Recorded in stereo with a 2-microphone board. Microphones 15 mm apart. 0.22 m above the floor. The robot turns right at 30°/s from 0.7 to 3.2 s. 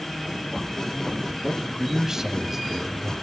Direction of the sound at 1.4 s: 25° right (ahead or behind).